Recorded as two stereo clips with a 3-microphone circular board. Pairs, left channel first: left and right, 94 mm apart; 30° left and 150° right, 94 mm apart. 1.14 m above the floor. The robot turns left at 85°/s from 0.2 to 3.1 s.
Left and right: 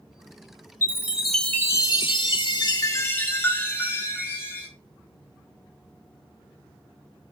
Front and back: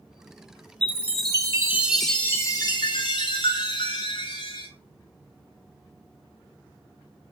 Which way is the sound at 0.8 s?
140° right.